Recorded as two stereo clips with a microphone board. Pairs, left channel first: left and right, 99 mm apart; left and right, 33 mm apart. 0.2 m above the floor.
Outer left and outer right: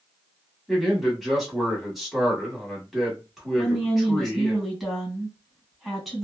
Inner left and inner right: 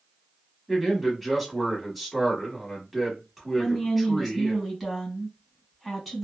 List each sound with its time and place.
0.7 s a man speaking: centre (ahead or behind), 1.2 m
3.6 s a woman speaking: 5° right (ahead or behind), 1.6 m